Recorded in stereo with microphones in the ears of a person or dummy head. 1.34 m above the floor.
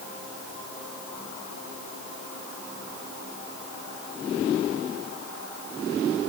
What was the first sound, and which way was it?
Only background noise.